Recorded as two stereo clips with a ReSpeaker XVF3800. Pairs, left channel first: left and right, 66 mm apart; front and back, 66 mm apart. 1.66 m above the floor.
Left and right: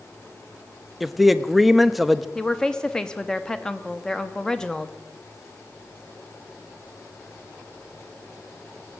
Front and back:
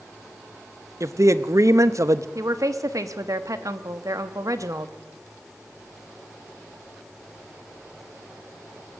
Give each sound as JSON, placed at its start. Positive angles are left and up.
{"t": 1.0, "sound": "a man speaking", "azimuth_deg": 180, "distance_m": 0.5}
{"t": 2.4, "sound": "a woman speaking", "azimuth_deg": 165, "distance_m": 0.8}